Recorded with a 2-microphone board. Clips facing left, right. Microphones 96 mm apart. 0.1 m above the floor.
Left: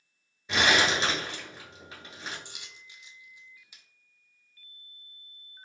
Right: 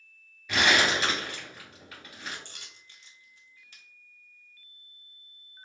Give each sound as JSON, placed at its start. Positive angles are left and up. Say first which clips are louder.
{"t": 0.5, "sound": "crumpling", "louder": "even", "side_deg": 25, "distance_m": 1.7}
{"t": 2.5, "sound": "a dropped coin", "louder": "left 2 dB", "side_deg": 10, "distance_m": 0.6}